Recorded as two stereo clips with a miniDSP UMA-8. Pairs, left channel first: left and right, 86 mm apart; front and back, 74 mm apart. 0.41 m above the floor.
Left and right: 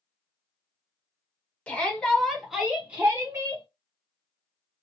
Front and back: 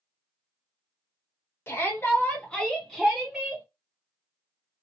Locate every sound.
1.7 s a shout: 25° left, 1.4 m; by 3.6 s 120° right, 1.4 m